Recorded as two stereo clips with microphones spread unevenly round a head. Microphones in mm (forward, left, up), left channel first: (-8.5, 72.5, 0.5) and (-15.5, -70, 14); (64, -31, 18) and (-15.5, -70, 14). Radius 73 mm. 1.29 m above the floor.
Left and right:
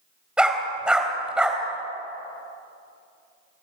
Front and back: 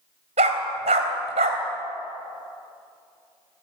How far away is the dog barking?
About 3.5 m.